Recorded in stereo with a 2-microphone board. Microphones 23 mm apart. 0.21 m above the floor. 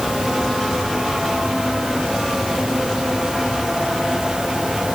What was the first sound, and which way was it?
Only background noise.